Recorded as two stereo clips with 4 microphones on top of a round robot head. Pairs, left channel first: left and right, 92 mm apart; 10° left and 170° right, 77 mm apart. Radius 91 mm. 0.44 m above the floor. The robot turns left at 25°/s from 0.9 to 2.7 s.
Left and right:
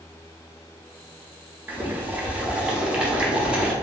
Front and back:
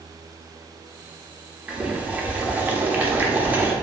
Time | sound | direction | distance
1.7 | boiling | 120° right | 0.9 m